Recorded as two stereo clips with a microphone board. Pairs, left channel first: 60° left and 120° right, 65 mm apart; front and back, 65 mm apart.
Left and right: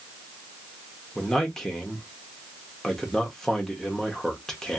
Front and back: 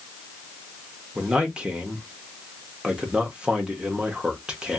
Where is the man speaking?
130° left, 0.9 m.